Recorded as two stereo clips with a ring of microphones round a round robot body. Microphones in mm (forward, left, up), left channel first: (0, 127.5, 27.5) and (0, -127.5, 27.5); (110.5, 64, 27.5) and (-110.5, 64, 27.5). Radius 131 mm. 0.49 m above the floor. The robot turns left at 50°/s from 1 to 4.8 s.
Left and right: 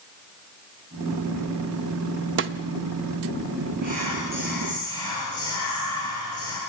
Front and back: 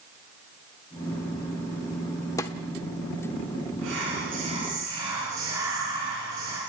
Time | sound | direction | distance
2.4 | a snare drum | 70° right | 0.8 m
3.8 | whispering | 155° left | 6 m